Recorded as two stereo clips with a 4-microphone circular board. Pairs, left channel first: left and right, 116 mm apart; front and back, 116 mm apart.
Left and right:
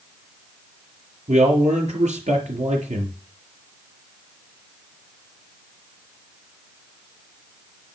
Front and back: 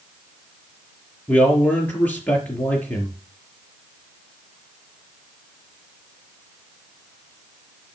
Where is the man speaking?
75° right, 4 m.